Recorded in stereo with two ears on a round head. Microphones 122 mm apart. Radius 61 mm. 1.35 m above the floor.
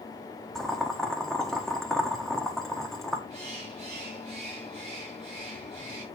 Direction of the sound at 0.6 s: 5° left (ahead or behind).